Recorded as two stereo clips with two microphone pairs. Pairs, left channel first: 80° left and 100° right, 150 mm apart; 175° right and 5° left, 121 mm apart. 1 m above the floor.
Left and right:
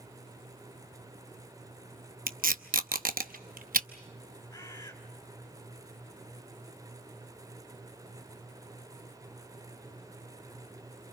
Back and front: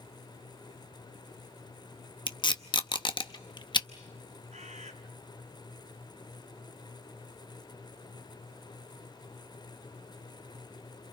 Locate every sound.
2.3 s tape being pulled: 125° right, 0.8 m
4.5 s a bird: 10° left, 3.5 m